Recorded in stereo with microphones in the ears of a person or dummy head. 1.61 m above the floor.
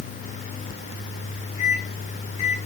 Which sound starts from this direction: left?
A microwave, at 1.6 s.